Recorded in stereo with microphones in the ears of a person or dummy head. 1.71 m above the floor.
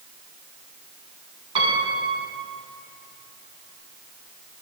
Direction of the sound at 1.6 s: 30° right (ahead or behind).